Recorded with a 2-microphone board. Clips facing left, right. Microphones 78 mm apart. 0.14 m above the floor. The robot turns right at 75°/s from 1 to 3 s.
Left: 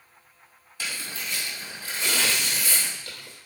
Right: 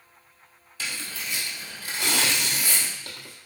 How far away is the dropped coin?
No dropped coin in this recording.